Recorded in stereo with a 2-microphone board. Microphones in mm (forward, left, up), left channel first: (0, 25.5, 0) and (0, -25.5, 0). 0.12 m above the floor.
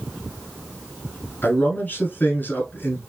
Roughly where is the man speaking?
Left.